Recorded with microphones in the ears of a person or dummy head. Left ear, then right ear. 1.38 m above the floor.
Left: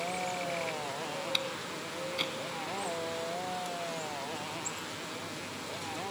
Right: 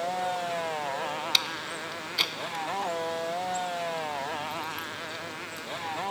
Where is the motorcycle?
50° right (ahead or behind).